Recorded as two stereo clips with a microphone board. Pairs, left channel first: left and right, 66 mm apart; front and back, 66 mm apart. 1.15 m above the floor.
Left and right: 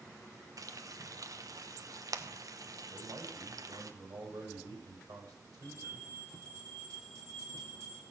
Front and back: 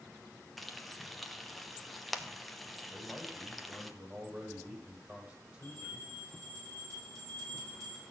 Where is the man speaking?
115° right, 5.5 m.